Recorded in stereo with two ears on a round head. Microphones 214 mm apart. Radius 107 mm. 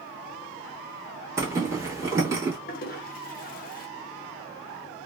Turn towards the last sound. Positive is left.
turn(degrees=40)  # may be behind; listen again after turning